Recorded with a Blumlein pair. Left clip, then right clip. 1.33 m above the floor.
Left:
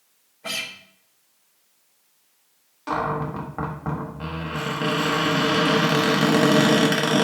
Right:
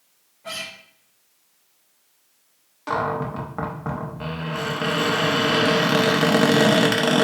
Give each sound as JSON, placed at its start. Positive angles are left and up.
{"t": 0.4, "sound": "a guitar", "azimuth_deg": 30, "distance_m": 0.5}
{"t": 2.9, "sound": "a cupboard door", "azimuth_deg": -5, "distance_m": 0.5}